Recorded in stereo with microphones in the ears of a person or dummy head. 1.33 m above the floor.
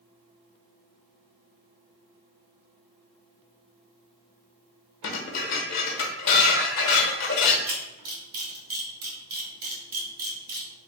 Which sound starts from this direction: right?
A camera shutter, at 7.7 s.